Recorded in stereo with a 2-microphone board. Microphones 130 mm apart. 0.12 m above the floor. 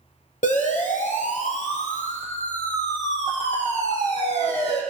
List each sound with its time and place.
0.4 s a siren: 70° left (ahead or behind), 6 m; by 4.8 s 50° left (ahead or behind), 7.5 m